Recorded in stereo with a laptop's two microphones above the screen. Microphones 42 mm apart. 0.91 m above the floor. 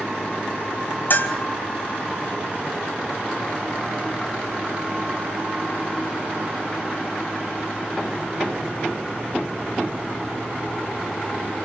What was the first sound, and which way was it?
A bell, 50° left (ahead or behind).